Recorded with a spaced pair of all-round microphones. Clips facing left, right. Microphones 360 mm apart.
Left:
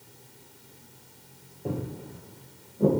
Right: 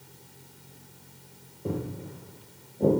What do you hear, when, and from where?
1.6 s footsteps: 10° right (ahead or behind), 1.4 m; by 2.9 s 10° left (ahead or behind), 2 m